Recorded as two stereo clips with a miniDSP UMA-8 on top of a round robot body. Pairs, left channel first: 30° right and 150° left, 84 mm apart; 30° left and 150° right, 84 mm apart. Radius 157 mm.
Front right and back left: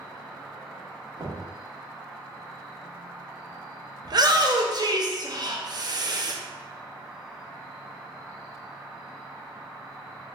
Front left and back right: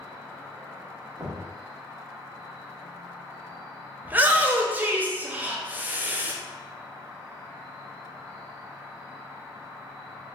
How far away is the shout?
About 0.5 m.